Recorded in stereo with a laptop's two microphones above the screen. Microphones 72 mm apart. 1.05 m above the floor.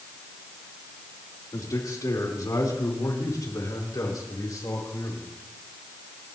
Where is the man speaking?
55° left (ahead or behind), 3.5 m.